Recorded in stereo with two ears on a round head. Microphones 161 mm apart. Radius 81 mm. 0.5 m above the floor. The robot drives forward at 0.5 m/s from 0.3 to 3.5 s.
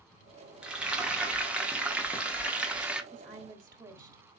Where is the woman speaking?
25° right (ahead or behind), 1.3 m; by 4.2 s 20° right (ahead or behind), 1.4 m.